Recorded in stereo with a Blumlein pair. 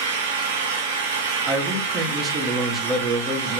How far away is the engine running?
About 2.5 m.